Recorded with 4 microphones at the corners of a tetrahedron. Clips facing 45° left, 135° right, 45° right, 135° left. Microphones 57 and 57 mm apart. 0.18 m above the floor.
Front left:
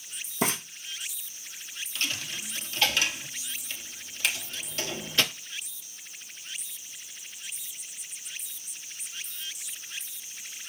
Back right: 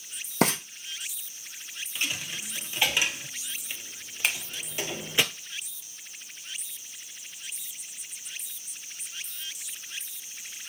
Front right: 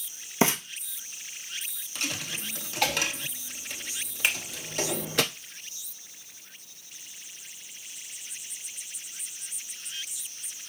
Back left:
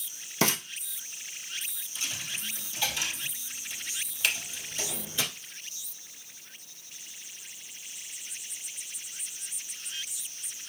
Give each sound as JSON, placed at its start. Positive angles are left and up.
{"t": 0.4, "sound": "frying", "azimuth_deg": -110, "distance_m": 1.9}
{"t": 1.9, "sound": "a dropped coin", "azimuth_deg": -65, "distance_m": 0.7}
{"t": 4.2, "sound": "a finger snap", "azimuth_deg": -95, "distance_m": 1.4}